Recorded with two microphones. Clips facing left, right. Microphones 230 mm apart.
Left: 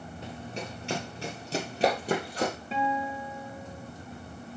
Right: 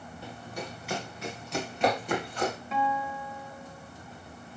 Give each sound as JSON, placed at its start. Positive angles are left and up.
{"t": 0.2, "sound": "running footsteps", "side_deg": 20, "distance_m": 1.6}
{"t": 2.7, "sound": "a guitar", "side_deg": 30, "distance_m": 1.7}